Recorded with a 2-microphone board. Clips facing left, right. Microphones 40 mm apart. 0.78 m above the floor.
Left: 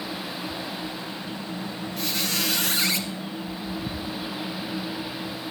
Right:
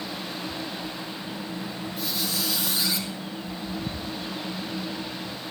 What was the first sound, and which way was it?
A squeak, 70° left (ahead or behind).